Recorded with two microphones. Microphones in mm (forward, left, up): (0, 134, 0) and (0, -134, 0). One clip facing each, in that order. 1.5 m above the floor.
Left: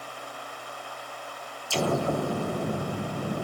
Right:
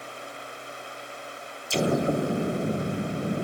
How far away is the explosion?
About 0.9 m.